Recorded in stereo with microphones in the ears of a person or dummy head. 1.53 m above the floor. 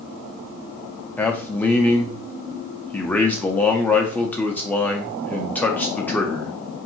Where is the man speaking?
5° left (ahead or behind), 0.5 m.